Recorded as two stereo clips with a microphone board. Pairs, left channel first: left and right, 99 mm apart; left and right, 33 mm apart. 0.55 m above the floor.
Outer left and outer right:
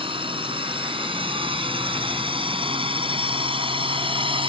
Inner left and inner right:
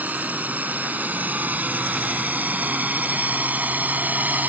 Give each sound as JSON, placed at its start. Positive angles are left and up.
{"t": 0.0, "sound": "a drone", "side_deg": -60}